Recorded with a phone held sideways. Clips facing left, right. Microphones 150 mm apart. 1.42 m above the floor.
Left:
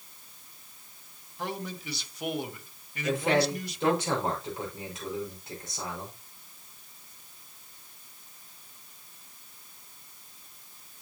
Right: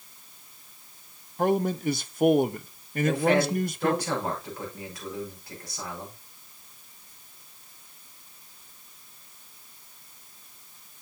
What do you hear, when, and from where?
1.4 s a man speaking: 55° right (ahead or behind), 0.6 m
3.0 s a man speaking: 25° left (ahead or behind), 5 m